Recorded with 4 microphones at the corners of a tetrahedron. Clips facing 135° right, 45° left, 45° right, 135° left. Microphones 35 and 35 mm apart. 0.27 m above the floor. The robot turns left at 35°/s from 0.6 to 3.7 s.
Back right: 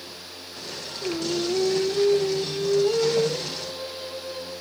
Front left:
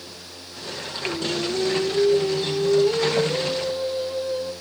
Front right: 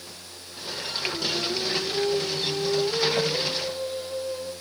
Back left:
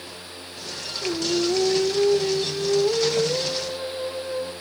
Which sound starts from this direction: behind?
Singing, at 1.0 s.